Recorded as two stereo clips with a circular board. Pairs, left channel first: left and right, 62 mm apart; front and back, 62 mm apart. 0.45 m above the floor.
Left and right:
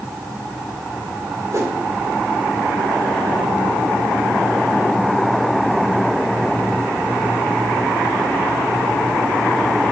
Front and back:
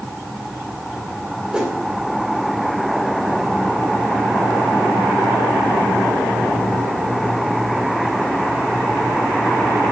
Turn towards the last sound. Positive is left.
turn(degrees=-110)